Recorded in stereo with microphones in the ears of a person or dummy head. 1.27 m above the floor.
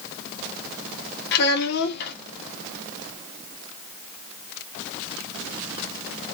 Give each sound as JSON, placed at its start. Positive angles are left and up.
{"t": 1.3, "sound": "a child speaking", "side_deg": 60, "distance_m": 0.5}